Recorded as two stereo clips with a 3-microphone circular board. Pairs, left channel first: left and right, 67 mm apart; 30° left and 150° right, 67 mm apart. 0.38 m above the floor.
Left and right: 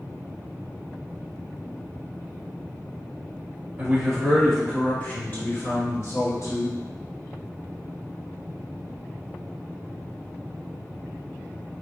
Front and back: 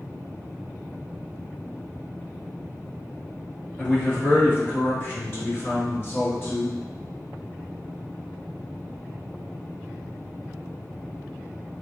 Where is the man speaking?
25° right, 1.3 m; by 6.8 s 80° left, 2 m.